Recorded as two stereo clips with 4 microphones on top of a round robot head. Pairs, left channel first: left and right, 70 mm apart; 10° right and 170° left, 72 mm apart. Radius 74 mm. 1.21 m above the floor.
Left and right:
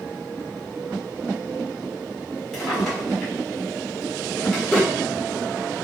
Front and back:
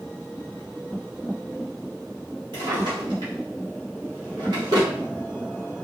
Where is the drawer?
175° left, 1.2 m.